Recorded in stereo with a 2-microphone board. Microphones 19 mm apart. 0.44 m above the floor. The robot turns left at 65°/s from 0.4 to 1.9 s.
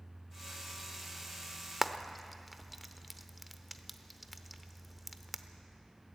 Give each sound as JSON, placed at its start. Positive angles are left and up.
{"t": 1.8, "sound": "frying", "side_deg": -10, "distance_m": 0.8}